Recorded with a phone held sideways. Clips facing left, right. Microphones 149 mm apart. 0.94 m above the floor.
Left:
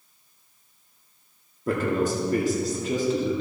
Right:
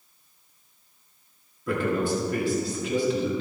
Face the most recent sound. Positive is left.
turn(degrees=40)  # may be behind; listen again after turning